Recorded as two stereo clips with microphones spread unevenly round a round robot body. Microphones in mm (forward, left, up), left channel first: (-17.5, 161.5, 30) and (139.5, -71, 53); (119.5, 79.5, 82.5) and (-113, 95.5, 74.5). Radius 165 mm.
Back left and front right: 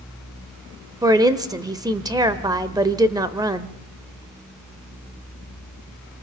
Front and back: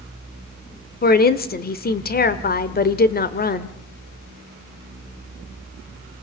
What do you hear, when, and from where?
1.0 s a woman speaking: 20° left, 1.1 m